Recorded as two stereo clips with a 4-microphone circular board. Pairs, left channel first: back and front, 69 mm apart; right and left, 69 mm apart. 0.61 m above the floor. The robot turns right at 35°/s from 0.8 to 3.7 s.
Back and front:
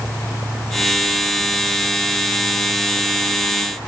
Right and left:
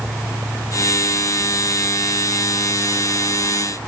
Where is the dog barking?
No dog barking in this recording.